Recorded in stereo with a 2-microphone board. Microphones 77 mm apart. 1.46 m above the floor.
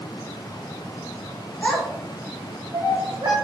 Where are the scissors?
No scissors in this recording.